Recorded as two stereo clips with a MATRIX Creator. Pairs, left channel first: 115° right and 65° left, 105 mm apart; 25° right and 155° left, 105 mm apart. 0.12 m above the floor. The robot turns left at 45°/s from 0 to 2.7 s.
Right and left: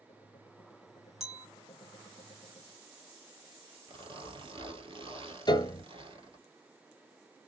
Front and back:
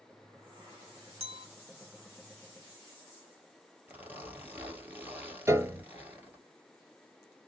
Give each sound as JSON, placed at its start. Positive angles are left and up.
{"t": 1.2, "sound": "a clink", "azimuth_deg": 155, "distance_m": 2.0}
{"t": 3.9, "sound": "a zipper", "azimuth_deg": 85, "distance_m": 1.4}
{"t": 5.5, "sound": "a piano", "azimuth_deg": -145, "distance_m": 0.6}